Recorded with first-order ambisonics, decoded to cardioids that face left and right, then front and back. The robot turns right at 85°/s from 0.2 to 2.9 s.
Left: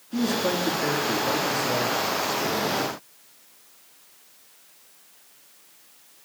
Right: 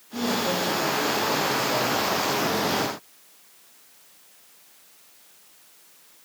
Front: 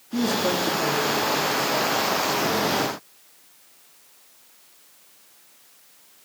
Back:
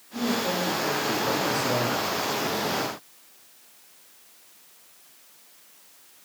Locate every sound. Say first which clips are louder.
0.1 s a man speaking: even, front 3 dB; 25° left, 3.5 m; by 2.1 s 170° right, 3.5 m